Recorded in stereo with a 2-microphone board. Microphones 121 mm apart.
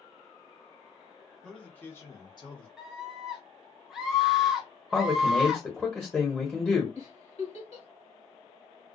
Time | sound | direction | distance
1.4 | a man speaking | 5° left (ahead or behind) | 1.4 m
2.8 | a scream | 5° right (ahead or behind) | 0.9 m
4.9 | a man speaking | 5° left (ahead or behind) | 1.0 m
7.0 | a giggle | 60° left (ahead or behind) | 1.3 m